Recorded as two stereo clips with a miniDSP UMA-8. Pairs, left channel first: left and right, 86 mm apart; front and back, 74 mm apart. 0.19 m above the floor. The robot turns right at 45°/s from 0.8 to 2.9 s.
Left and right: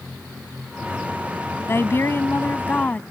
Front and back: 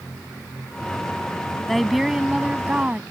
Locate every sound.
1.7 s a woman speaking: 85° left; by 3.0 s 140° left